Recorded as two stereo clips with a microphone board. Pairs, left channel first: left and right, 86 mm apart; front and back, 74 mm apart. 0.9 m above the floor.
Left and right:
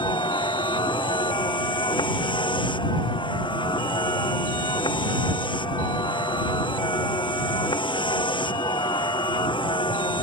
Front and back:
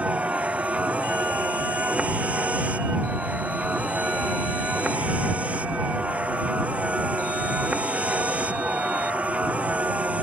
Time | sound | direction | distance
0.0 | a vehicle | 110° left | ?